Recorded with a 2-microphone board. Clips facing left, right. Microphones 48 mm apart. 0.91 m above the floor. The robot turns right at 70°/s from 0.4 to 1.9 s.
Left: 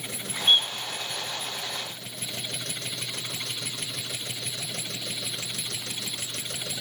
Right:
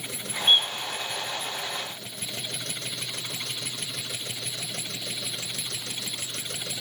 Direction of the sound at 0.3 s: Centre (ahead or behind).